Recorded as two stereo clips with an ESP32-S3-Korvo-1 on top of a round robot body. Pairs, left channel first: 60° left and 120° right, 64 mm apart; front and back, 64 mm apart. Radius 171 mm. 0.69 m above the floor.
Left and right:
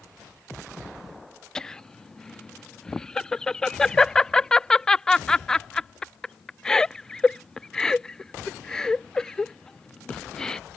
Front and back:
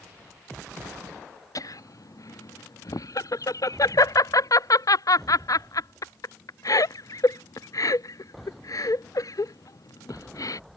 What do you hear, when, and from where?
1.6 s laughter: 20° right